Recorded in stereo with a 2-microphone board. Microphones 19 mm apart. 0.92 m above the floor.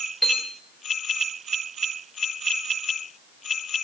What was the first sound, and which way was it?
A piano, 5° left (ahead or behind).